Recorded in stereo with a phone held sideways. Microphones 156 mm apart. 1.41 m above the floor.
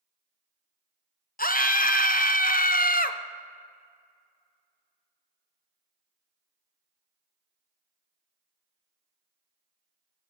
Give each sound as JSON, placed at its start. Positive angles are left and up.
{"t": 1.4, "sound": "a scream", "side_deg": 65, "distance_m": 0.7}